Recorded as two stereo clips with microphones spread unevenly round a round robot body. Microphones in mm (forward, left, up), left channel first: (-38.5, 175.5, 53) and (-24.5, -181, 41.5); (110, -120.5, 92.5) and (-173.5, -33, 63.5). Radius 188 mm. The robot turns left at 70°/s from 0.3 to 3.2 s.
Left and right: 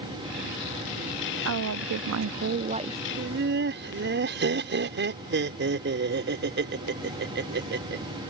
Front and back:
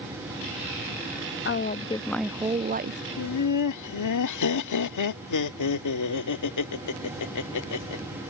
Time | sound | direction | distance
1.4 | a woman speaking | 60° right | ?
3.2 | laughter | 25° right | ?